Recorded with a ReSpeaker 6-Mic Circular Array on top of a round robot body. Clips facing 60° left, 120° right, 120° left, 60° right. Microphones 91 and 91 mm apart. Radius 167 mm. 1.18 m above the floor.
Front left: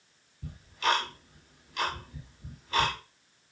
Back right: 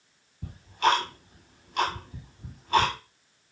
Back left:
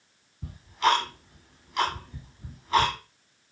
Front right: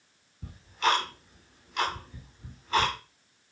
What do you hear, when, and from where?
0.4 s ticking: 155° right, 1.2 m